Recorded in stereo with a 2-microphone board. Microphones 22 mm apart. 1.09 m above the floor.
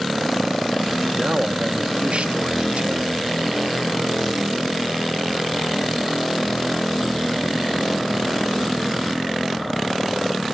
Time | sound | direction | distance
1.1 | a man speaking | 75° right (ahead or behind) | 1.8 m